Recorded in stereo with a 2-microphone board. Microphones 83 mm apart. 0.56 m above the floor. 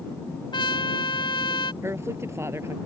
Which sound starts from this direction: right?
A woman speaking, at 1.8 s.